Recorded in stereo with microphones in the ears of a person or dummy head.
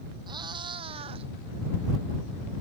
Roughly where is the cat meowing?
Right.